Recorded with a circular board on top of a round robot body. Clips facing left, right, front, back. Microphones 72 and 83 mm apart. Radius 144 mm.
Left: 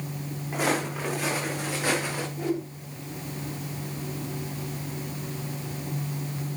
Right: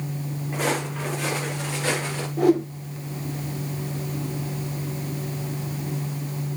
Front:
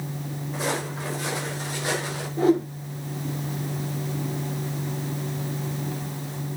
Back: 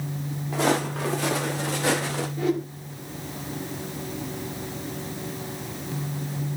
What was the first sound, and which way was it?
Footsteps, 170° left.